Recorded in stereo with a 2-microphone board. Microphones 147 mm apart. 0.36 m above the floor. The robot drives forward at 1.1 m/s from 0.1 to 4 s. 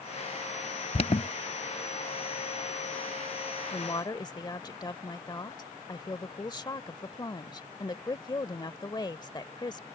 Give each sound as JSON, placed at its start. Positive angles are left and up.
{"t": 0.9, "sound": "an alarm", "side_deg": 45}
{"t": 3.7, "sound": "a woman speaking", "side_deg": 35}